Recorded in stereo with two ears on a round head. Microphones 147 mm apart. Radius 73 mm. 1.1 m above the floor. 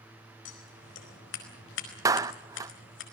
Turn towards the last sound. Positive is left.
turn(degrees=-20)  # may be behind; listen again after turning